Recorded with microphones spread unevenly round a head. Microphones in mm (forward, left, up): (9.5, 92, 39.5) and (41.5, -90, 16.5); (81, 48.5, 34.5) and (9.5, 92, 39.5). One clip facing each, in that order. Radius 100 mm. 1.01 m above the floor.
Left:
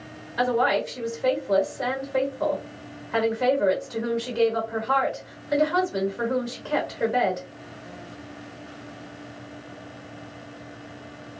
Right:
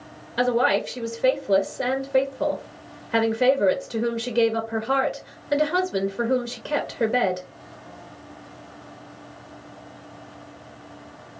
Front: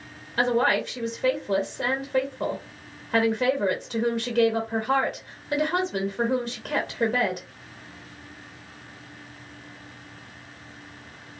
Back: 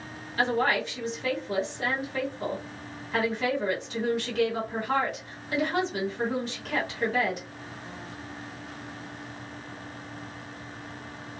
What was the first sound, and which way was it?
A woman speaking, 45° right.